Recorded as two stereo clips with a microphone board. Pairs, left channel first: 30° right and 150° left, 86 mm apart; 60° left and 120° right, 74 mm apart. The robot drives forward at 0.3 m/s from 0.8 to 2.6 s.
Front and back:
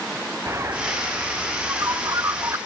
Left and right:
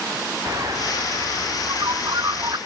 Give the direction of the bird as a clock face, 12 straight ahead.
5 o'clock.